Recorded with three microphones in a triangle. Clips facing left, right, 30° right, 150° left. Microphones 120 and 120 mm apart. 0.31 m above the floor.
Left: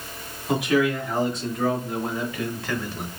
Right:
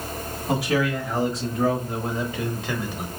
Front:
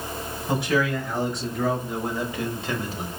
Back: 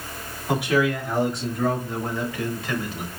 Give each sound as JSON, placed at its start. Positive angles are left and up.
{"t": 0.5, "sound": "a man speaking", "azimuth_deg": -135, "distance_m": 1.6}